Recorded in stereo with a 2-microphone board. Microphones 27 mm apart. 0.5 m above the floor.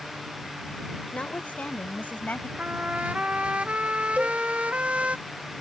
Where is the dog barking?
I don't hear a dog barking.